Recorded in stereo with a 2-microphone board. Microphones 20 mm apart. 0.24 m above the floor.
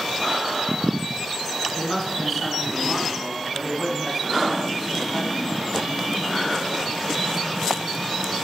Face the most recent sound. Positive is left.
turn(degrees=0)  # may be behind; listen again after turning